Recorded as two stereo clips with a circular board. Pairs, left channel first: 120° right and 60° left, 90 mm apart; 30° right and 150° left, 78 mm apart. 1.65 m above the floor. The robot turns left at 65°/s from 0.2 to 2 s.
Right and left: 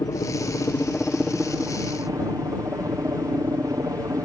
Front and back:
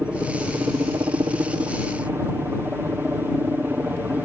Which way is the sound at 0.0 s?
140° right.